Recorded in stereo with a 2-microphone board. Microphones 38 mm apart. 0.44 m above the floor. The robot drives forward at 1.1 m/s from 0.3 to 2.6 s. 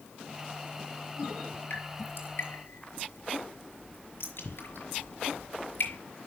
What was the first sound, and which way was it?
Dripping, 60° left (ahead or behind).